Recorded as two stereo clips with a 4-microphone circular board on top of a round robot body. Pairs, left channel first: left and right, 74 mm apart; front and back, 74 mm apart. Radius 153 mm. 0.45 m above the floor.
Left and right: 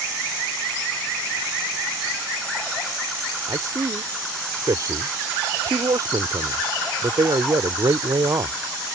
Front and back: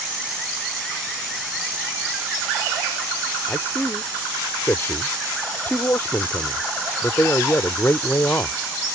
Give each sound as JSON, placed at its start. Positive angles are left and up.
{"t": 3.5, "sound": "a man speaking", "azimuth_deg": -55}